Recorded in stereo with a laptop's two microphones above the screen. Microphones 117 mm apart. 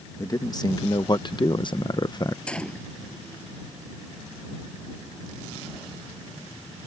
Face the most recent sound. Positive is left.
turn(degrees=10)  # may be behind; listen again after turning